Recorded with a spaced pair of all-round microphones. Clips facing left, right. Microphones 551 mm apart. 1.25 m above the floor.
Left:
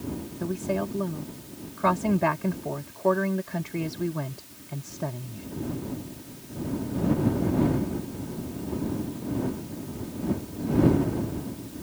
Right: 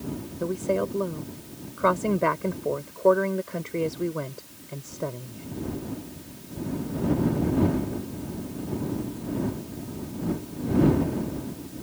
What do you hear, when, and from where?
0.4 s a woman speaking: 15° left (ahead or behind)